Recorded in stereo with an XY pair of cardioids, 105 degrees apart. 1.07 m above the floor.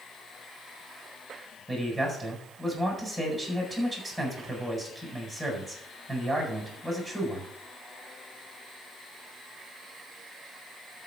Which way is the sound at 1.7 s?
Straight ahead.